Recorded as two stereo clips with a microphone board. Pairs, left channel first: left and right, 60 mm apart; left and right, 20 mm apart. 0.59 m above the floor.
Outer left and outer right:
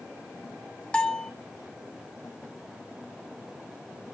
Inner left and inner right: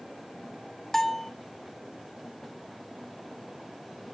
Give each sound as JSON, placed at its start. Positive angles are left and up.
{"t": 0.9, "sound": "a bell", "side_deg": 20, "distance_m": 1.0}